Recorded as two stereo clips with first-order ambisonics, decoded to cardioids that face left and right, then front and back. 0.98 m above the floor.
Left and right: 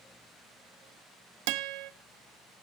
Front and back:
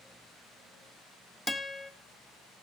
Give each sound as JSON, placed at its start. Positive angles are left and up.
{"t": 1.5, "sound": "a guitar", "azimuth_deg": -90, "distance_m": 1.1}